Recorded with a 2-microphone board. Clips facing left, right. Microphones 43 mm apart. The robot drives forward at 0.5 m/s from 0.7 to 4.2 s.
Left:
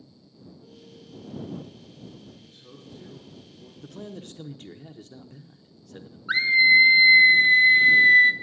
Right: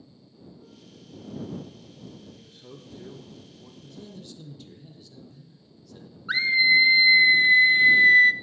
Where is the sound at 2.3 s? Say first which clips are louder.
Right 2 dB; 80° right, 1.4 m; by 3.7 s 65° right (ahead or behind), 1.5 m.